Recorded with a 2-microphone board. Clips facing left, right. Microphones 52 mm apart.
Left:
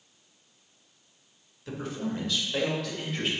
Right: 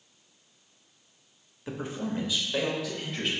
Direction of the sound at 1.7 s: 25° right (ahead or behind).